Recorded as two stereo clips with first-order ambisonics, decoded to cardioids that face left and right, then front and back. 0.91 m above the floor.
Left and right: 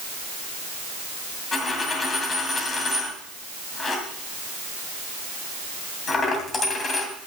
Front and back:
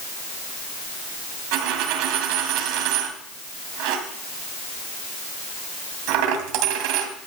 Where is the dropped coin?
160° left, 2 m.